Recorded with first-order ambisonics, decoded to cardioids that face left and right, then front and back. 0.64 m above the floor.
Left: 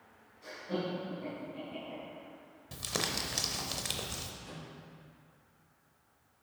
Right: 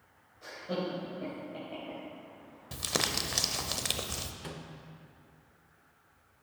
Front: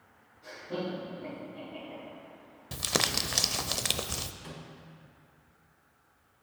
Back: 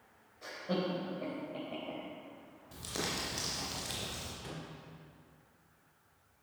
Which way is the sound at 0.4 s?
155° right.